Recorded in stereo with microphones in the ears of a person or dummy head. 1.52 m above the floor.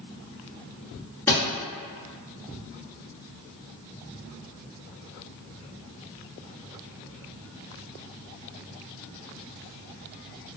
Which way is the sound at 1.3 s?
15° left (ahead or behind).